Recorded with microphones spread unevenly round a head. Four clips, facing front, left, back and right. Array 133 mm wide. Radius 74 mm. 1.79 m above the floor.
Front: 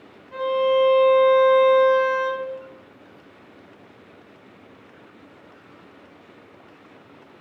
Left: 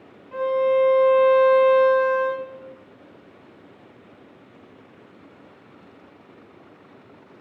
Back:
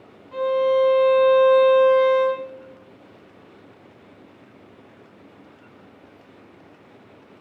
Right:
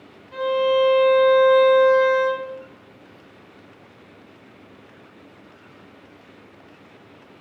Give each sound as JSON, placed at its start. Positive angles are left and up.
{"t": 0.3, "sound": "a violin", "azimuth_deg": 125, "distance_m": 2.5}